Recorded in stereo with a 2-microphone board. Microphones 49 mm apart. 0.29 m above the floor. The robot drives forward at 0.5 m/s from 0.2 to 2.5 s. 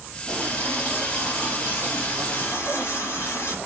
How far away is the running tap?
About 4.5 m.